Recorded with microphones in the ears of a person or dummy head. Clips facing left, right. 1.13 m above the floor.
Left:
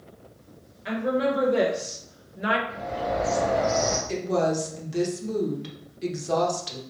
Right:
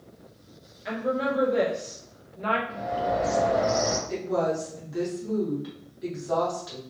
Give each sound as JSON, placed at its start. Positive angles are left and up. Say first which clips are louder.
{"t": 0.8, "sound": "a woman speaking", "louder": "left 3 dB", "side_deg": 0, "distance_m": 1.4}
{"t": 2.7, "sound": "a bird", "louder": "right 1 dB", "side_deg": -20, "distance_m": 0.8}
{"t": 4.1, "sound": "a woman speaking", "louder": "left 2 dB", "side_deg": 40, "distance_m": 1.2}